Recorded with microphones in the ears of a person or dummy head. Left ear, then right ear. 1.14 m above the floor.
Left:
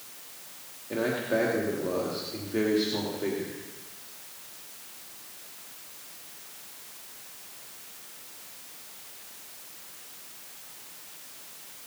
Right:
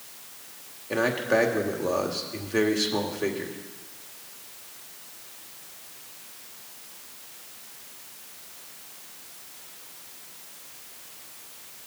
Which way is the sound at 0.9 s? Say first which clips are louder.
Right 4 dB; 60° right (ahead or behind).